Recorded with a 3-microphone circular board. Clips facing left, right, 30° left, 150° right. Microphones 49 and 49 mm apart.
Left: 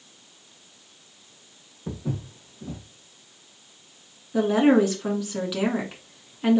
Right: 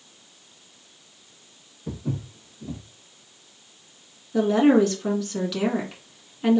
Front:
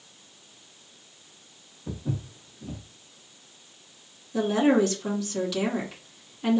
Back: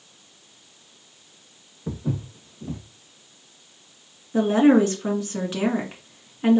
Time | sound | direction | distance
1.9 | footsteps | 155° left | 1.8 m
4.3 | a woman speaking | 165° left | 1.6 m